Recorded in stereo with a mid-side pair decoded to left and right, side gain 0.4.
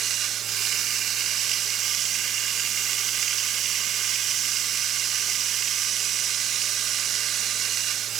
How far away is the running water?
About 0.8 m.